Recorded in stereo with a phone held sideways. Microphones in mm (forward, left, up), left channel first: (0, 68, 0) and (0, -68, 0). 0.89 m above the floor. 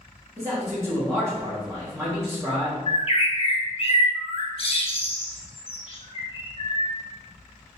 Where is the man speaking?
20° right (ahead or behind), 1.4 m.